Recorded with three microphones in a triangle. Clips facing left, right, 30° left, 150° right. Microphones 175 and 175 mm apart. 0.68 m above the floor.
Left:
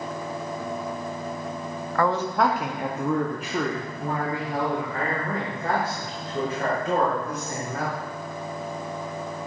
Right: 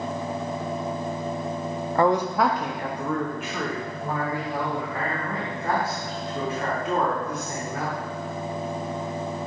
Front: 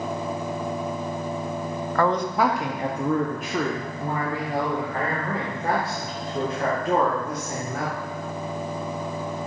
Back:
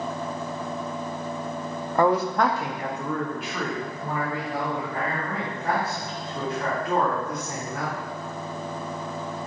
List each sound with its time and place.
1.9 s a man speaking: 105° right, 0.6 m; by 8.0 s 55° left, 3.5 m